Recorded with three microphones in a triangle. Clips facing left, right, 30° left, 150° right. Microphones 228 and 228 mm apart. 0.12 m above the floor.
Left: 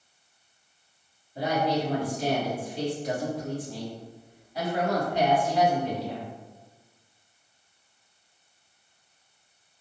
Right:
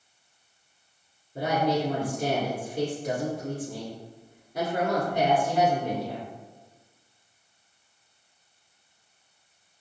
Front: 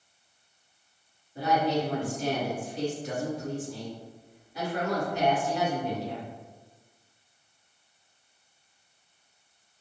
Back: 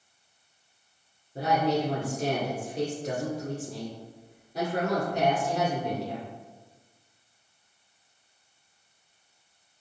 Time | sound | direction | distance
1.4 | a woman speaking | 110° right | 1.9 m